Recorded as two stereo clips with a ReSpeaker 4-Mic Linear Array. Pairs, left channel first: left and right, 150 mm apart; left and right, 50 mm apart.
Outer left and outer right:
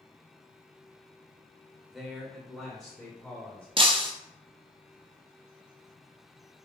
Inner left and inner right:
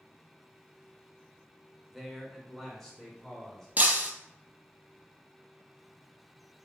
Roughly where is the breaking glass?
Right.